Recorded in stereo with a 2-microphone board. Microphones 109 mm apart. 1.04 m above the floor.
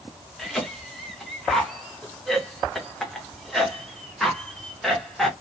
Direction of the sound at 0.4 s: 5° left (ahead or behind).